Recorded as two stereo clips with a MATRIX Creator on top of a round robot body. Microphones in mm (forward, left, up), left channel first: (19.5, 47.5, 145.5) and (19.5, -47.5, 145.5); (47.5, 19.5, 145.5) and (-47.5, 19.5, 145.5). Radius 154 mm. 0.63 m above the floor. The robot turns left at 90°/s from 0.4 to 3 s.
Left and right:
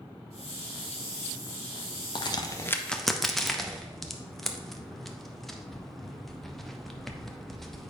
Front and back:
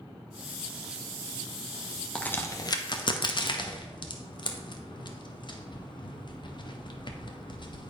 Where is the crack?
80° left, 1.1 m; by 7.9 s straight ahead, 1.1 m.